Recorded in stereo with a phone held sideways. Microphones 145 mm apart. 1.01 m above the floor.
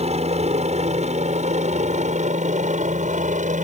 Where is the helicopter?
50° right (ahead or behind); by 3.6 s 60° right (ahead or behind).